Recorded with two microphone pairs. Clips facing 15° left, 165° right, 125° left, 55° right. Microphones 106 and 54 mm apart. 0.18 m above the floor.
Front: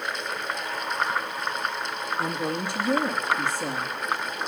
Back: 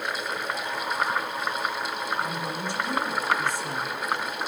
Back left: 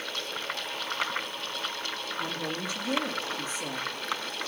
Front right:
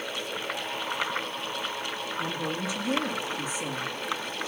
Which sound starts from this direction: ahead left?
A woman speaking, at 2.2 s.